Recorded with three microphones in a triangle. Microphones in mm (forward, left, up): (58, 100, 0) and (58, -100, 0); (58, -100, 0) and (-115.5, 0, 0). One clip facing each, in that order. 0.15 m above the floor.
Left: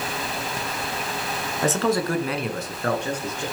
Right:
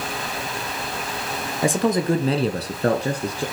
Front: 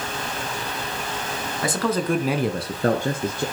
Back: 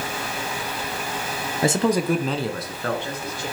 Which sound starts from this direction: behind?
A man speaking, at 1.6 s.